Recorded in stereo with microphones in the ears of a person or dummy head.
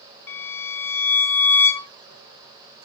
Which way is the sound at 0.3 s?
10° left (ahead or behind).